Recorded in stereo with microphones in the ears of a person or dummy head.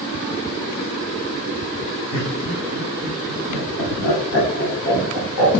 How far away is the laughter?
About 6.5 m.